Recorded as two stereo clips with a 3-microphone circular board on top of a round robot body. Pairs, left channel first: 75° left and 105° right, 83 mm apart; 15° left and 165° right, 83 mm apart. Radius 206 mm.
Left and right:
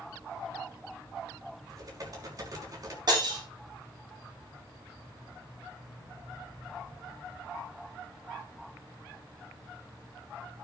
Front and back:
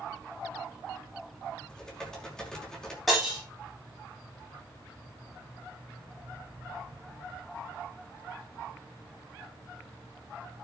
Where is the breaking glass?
75° right, 10 m.